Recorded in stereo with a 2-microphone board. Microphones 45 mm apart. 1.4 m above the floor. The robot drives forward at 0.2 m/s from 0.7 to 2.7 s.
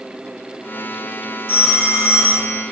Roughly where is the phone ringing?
Right.